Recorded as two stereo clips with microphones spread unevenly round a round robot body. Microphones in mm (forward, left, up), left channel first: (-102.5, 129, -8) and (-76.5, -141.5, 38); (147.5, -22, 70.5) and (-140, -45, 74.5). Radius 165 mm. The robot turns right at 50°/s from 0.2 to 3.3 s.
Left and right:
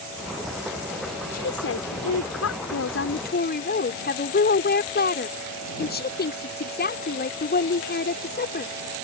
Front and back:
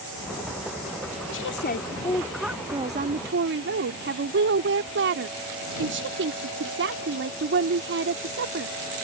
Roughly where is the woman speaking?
Ahead left.